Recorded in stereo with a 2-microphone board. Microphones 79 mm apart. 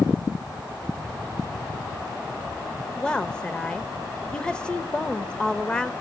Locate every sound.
3.0 s a woman speaking: 15° left (ahead or behind), 1.0 m